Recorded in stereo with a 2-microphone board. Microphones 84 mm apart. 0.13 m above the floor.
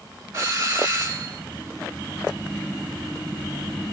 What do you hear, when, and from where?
0.3 s a doorbell: 40° right (ahead or behind), 2.5 m